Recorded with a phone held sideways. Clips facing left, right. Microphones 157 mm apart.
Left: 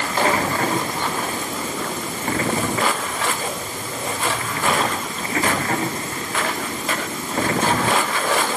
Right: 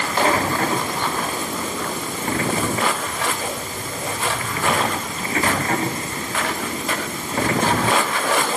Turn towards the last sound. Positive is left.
No sound to turn to.